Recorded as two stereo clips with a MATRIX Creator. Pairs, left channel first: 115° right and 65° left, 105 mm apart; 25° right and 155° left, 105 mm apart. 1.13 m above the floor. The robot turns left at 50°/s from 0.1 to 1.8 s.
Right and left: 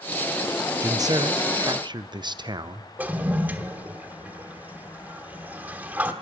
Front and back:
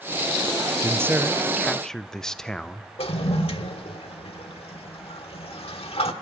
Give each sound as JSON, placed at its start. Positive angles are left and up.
{"t": 0.8, "sound": "a man speaking", "azimuth_deg": 110, "distance_m": 0.7}
{"t": 3.0, "sound": "a toilet flushing", "azimuth_deg": -5, "distance_m": 1.4}